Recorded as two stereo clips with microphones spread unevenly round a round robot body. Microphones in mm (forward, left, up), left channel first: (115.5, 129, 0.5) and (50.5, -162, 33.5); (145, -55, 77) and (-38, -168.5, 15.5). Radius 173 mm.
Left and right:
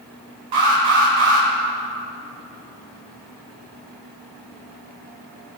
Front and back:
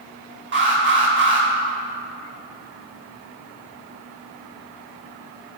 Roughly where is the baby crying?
I don't hear a baby crying.